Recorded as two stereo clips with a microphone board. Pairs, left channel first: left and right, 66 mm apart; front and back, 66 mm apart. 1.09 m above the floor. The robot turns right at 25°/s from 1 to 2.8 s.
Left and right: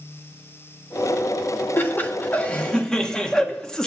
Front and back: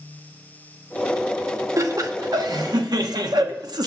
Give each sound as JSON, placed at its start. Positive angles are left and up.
{"t": 1.8, "sound": "laughter", "azimuth_deg": 145, "distance_m": 1.3}